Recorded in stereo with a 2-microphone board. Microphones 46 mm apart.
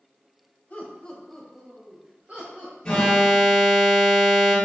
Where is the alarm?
15° left (ahead or behind), 1.2 m.